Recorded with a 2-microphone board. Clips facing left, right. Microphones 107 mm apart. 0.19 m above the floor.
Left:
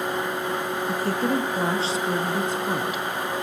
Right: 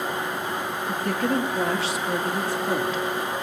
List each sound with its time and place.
0.9 s a woman speaking: 35° left (ahead or behind), 4 m; by 3.0 s 10° left (ahead or behind), 1.5 m